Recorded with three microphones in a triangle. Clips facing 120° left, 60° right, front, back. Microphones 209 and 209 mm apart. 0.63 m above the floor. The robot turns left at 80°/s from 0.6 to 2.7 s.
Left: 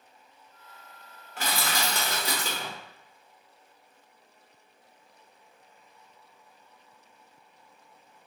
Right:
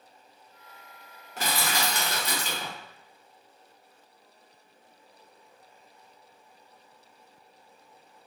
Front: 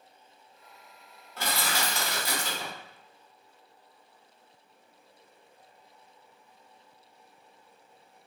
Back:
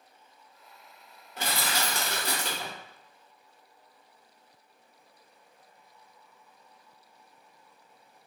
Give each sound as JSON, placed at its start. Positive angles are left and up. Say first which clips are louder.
{"t": 1.4, "sound": "crushing", "louder": "right 1 dB, even", "azimuth_deg": -110, "distance_m": 1.1}